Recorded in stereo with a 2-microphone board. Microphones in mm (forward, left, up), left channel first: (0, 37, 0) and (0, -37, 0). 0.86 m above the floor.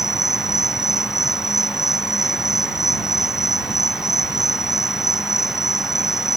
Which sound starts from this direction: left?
An insect, at 0.0 s.